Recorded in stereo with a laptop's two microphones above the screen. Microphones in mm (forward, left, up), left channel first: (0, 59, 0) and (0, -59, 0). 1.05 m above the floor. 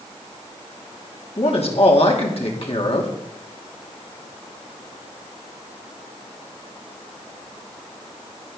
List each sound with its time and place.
1.4 s a man speaking: 55° left (ahead or behind), 2.5 m